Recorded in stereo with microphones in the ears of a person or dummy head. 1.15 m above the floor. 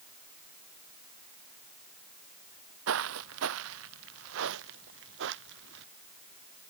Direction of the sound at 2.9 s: 75° right (ahead or behind).